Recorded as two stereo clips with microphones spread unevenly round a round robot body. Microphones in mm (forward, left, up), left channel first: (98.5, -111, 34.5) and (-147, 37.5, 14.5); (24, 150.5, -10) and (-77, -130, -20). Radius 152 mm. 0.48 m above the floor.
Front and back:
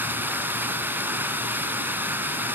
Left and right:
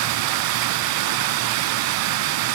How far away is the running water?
About 0.8 m.